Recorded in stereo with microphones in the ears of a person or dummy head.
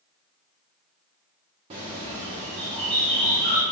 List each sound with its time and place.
1.7 s a bird: 30° right (ahead or behind), 0.7 m